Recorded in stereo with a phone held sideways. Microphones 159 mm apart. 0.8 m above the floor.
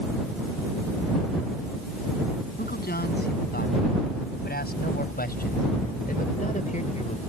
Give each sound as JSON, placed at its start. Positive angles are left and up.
{"t": 2.6, "sound": "a man speaking", "side_deg": 80}